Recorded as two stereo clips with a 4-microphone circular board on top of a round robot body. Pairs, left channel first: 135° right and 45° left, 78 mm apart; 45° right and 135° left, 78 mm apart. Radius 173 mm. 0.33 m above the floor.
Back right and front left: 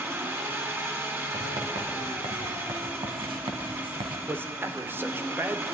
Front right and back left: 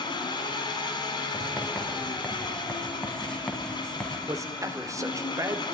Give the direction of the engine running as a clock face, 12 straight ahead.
1 o'clock.